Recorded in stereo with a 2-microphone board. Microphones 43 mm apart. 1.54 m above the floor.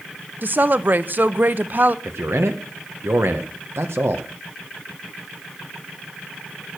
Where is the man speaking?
75° right (ahead or behind), 1.5 m.